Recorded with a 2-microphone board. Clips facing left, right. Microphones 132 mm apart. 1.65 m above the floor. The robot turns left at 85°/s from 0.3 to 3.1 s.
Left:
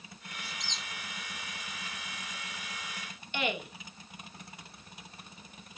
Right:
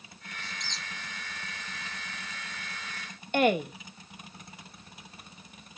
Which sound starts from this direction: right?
A woman speaking, at 3.3 s.